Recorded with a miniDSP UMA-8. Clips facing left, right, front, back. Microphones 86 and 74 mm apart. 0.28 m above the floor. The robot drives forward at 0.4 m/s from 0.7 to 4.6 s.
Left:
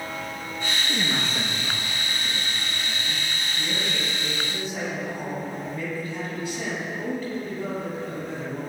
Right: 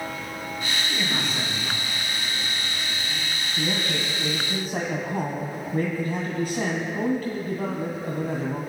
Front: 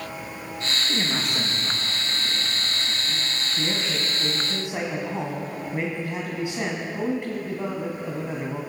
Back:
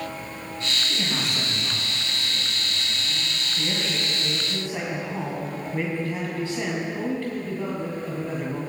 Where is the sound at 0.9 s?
35° left, 5 m; by 3.3 s 40° left, 4 m.